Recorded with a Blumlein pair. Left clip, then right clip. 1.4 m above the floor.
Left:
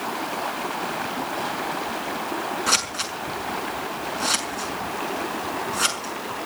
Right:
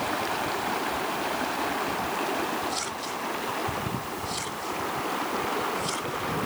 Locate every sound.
2.7 s scissors: 40° left, 6 m